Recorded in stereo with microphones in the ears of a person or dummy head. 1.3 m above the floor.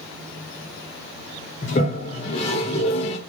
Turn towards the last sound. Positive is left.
turn(degrees=25)  # may be behind; listen again after turning